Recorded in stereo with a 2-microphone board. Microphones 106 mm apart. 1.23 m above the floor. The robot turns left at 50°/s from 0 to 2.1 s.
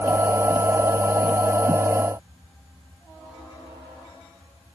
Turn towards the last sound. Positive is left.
No sound to turn to.